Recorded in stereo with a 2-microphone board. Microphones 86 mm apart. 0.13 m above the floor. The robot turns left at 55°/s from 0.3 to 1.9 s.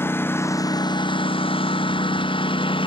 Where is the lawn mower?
25° left (ahead or behind); by 2.9 s 75° left (ahead or behind).